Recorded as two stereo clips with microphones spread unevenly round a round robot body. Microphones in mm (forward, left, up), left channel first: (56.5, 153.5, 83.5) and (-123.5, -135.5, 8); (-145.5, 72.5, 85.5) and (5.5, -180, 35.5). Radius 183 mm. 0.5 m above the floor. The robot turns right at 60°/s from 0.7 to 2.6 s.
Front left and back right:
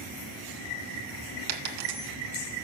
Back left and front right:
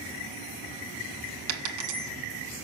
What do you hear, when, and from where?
1.5 s a dropped coin: 100° right, 1.9 m; by 2.1 s 60° right, 1.9 m